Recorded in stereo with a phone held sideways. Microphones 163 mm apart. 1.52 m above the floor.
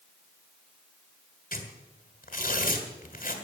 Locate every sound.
1.5 s tearing paper: 55° left (ahead or behind), 1.9 m